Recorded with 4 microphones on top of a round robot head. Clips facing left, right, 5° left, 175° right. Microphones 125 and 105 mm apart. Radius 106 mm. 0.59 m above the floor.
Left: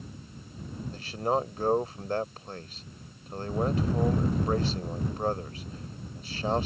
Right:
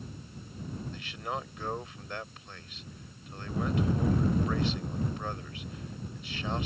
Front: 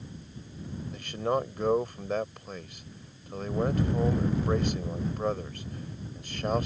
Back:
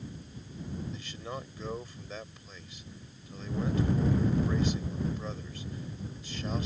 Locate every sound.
0.9 s a man speaking: 35° left